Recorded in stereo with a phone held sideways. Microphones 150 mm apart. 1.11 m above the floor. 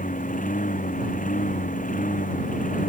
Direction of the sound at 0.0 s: 65° left (ahead or behind).